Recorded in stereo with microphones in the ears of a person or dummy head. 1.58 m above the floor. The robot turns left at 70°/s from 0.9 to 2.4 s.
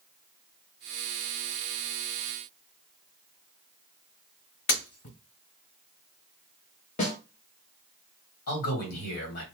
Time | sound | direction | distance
4.7 | breaking glass | 40° left (ahead or behind) | 2 m
7.0 | a snare drum | 40° left (ahead or behind) | 1.0 m
8.5 | a man speaking | 55° left (ahead or behind) | 1.7 m